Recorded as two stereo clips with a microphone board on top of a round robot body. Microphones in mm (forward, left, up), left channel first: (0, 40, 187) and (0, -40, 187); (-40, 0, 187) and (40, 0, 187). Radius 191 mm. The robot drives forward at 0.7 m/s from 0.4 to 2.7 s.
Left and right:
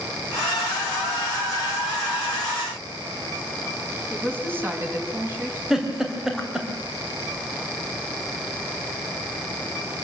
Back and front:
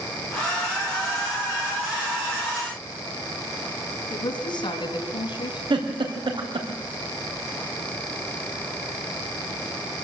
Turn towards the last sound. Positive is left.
turn(degrees=-5)